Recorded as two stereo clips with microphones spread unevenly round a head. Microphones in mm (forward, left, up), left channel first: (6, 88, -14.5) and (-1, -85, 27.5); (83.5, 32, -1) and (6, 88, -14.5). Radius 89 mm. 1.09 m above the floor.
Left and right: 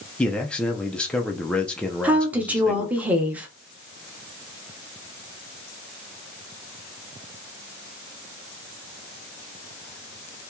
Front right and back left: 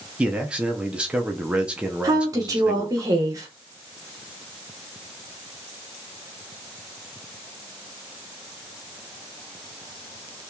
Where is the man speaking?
115° left, 0.6 m.